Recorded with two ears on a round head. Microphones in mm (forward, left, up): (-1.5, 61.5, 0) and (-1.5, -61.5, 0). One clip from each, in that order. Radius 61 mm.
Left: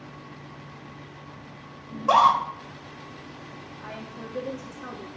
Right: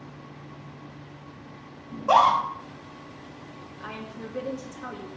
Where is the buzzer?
I don't hear a buzzer.